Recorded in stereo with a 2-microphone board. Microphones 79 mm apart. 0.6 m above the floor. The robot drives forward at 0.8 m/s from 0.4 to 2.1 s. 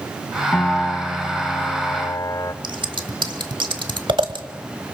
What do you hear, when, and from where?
0.5 s a piano: 20° left (ahead or behind), 1.9 m; by 2.5 s 45° left (ahead or behind), 0.8 m
2.6 s scissors: 85° right, 1.2 m